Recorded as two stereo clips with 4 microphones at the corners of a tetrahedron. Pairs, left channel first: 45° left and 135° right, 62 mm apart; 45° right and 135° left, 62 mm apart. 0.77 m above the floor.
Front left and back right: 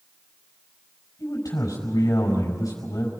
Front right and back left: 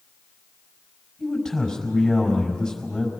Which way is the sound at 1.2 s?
40° left.